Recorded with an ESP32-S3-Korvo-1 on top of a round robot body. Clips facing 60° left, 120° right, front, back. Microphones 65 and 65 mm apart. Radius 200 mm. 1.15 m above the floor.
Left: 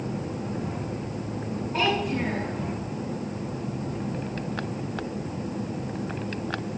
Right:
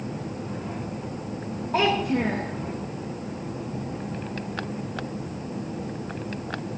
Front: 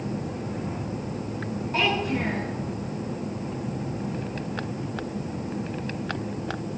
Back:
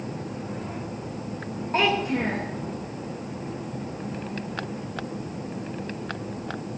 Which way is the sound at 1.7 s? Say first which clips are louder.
Right 3 dB, back 2 dB; 125° right.